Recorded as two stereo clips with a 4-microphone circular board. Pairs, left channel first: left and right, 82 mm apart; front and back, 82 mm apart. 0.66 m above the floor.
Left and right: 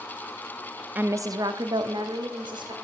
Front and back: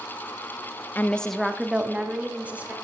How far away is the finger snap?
No finger snap in this recording.